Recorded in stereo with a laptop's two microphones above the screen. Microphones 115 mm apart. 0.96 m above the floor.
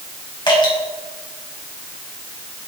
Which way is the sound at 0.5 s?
45° left (ahead or behind).